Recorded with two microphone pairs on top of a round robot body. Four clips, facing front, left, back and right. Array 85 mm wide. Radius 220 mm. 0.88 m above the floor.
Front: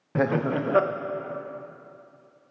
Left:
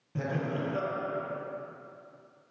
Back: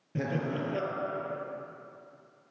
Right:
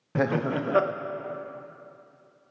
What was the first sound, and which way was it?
Laughter, 50° right.